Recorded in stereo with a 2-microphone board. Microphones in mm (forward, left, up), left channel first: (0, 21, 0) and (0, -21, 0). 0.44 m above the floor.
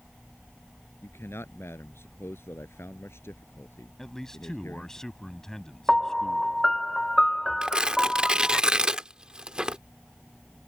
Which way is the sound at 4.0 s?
10° left (ahead or behind).